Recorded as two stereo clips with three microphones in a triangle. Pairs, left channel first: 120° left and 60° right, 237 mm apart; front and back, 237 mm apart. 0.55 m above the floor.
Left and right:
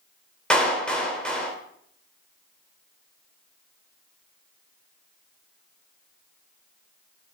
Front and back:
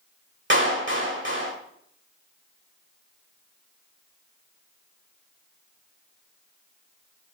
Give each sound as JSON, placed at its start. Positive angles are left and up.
{"t": 0.5, "sound": "a clap", "azimuth_deg": -155, "distance_m": 1.8}